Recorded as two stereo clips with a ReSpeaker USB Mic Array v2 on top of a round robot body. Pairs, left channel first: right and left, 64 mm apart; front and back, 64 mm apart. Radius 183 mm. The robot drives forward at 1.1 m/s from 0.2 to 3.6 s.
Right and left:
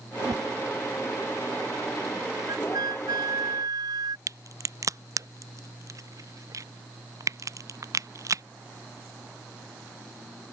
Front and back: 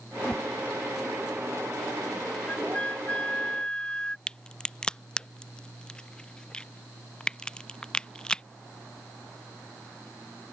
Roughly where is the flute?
Left.